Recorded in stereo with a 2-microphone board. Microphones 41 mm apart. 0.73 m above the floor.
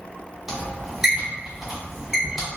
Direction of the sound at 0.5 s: 5° right (ahead or behind).